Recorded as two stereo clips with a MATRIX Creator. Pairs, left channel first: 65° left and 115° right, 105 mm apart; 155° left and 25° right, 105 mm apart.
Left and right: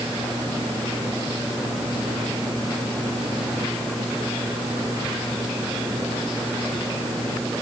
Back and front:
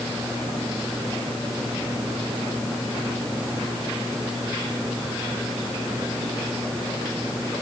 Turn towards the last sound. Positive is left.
No sound to turn to.